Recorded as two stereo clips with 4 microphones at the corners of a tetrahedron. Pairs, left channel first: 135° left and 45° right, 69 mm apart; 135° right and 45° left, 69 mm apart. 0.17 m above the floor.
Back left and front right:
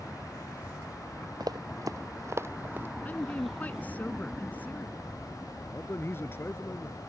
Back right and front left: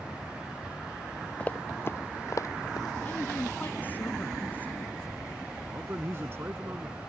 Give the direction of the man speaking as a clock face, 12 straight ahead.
9 o'clock.